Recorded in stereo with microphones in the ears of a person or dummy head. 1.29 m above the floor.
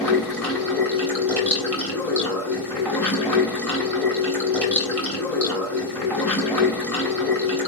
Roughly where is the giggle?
No giggle in this recording.